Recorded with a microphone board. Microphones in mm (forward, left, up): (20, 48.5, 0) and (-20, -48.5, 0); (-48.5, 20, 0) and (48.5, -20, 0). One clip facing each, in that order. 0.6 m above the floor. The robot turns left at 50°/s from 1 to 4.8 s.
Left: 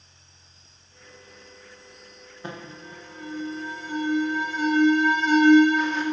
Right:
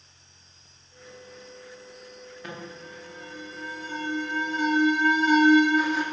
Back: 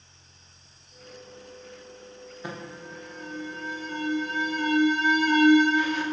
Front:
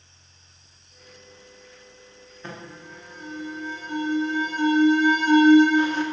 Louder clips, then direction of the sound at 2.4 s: Left 2 dB, back 1 dB; 90° left.